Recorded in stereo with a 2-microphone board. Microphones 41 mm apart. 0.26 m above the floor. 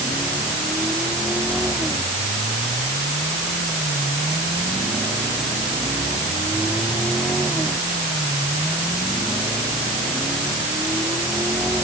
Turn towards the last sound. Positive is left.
No sound to turn to.